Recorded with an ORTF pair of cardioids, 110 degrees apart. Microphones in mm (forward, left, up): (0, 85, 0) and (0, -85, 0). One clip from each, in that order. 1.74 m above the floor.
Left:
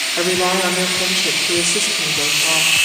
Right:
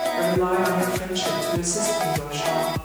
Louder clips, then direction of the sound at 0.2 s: Left 6 dB; 45° left.